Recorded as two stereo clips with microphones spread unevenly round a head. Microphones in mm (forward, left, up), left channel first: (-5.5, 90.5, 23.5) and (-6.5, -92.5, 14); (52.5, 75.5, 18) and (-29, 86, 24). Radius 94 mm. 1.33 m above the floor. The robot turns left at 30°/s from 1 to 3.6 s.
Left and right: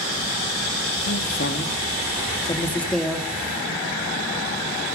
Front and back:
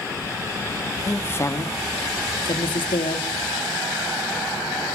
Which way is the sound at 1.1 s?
60° left.